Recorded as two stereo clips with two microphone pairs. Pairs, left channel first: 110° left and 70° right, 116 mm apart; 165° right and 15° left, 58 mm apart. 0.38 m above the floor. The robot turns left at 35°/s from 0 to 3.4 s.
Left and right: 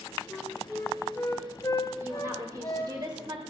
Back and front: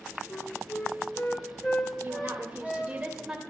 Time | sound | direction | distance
0.3 | a flute | 165° right | 1.5 m
2.0 | a woman speaking | 10° right | 1.4 m